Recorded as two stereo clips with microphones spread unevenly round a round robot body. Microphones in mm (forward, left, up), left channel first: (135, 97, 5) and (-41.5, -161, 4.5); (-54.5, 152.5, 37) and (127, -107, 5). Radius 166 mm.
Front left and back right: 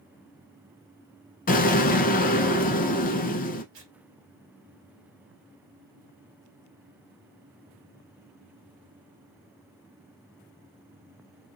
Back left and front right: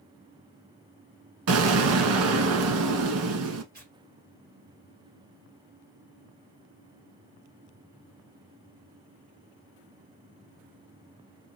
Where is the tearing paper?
95° right, 1.9 m.